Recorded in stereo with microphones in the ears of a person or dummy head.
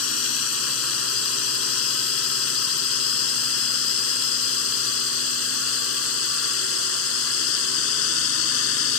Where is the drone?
85° left.